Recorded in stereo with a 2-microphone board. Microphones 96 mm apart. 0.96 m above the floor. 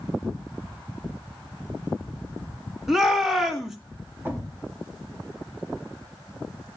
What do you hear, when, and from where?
2.9 s a shout: 5° right (ahead or behind), 2.0 m
4.2 s a thud: 20° right (ahead or behind), 1.7 m